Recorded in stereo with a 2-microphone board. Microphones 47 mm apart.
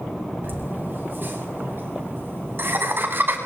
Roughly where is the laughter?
Right.